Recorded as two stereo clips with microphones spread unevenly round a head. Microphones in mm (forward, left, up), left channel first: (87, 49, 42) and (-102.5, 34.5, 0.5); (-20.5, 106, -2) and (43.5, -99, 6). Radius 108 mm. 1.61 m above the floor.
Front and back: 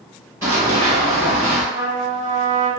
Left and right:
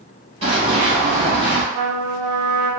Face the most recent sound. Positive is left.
turn(degrees=-105)